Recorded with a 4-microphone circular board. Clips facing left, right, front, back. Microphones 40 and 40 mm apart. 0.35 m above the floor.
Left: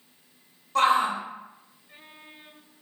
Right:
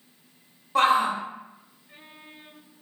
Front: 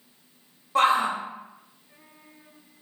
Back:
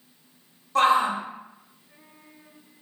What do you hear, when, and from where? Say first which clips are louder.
0.8 s a shout: right 1 dB, back 1 dB; 45° right, 1.0 m